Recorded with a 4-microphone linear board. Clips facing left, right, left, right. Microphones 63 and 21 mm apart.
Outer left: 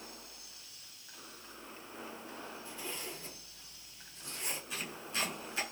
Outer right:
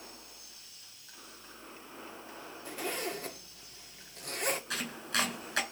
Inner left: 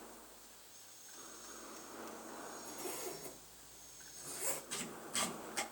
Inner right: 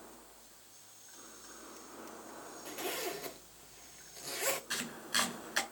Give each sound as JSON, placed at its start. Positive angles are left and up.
{"t": 2.6, "sound": "a zipper", "side_deg": -70, "distance_m": 1.6}
{"t": 4.7, "sound": "chopping", "side_deg": -75, "distance_m": 5.5}